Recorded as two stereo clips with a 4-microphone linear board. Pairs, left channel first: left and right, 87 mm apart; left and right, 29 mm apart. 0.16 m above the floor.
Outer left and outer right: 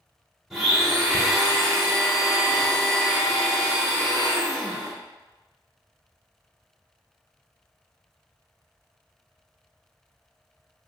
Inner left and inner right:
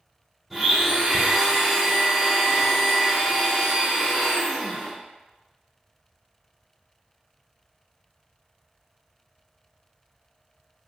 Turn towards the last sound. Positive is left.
turn(degrees=-5)  # may be behind; listen again after turning